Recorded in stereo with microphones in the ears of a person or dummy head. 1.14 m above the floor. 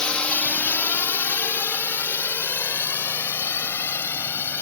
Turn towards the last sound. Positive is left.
turn(degrees=15)  # may be behind; listen again after turning